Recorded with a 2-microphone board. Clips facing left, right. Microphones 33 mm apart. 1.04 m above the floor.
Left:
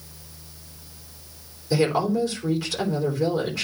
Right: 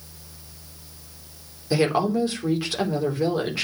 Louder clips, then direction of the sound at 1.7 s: Even; 30° right (ahead or behind).